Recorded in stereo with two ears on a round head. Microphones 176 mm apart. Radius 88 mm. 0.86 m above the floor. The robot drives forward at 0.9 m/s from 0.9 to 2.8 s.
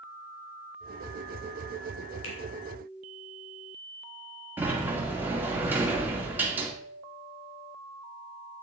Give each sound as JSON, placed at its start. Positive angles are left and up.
{"t": 2.2, "sound": "a finger snap", "side_deg": 75, "distance_m": 3.0}
{"t": 4.6, "sound": "a sliding door", "side_deg": -10, "distance_m": 2.0}